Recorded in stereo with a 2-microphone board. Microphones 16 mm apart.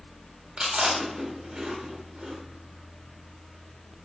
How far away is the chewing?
About 1.1 m.